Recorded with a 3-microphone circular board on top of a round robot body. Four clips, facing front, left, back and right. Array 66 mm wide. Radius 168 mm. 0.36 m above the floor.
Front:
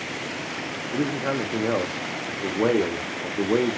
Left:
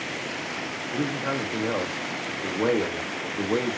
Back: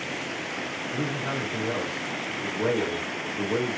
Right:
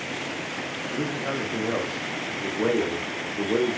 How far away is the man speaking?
About 1.1 m.